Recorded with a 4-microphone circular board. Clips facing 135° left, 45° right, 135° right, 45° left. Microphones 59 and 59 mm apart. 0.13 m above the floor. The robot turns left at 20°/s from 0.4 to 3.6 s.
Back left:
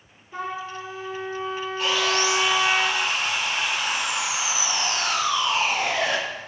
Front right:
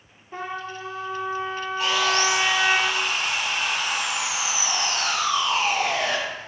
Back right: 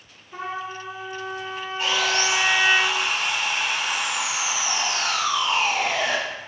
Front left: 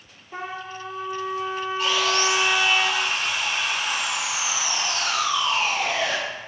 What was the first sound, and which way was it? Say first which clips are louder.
A trumpet: back left 1 dB, back right 2 dB; straight ahead.